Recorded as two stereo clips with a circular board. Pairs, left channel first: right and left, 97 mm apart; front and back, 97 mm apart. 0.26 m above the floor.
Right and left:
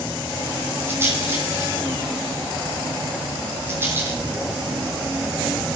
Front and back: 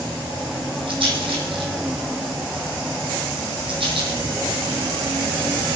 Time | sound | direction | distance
0.9 | a rattle | 155° left | 5.5 m